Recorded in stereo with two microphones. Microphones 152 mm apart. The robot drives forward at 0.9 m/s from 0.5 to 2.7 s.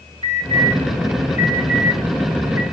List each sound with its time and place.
0.2 s an alarm: 40° right (ahead or behind), 8 m; by 2.6 s 30° right (ahead or behind), 9.5 m